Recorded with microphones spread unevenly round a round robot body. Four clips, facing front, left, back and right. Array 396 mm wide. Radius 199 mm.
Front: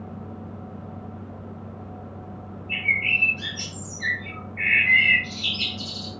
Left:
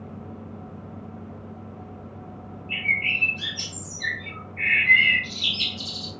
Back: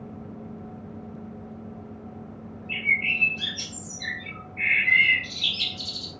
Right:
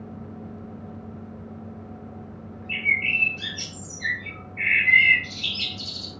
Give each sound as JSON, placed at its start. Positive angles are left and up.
{"t": 2.7, "sound": "a bird", "azimuth_deg": 155, "distance_m": 1.8}